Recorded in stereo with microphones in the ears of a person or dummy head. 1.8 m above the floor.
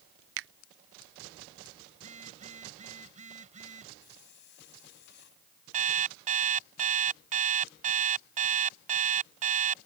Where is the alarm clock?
45° right (ahead or behind).